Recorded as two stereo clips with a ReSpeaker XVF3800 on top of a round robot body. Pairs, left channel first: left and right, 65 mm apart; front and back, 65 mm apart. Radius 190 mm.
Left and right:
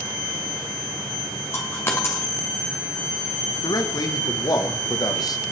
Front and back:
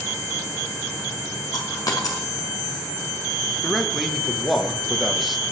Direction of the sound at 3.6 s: 90° left.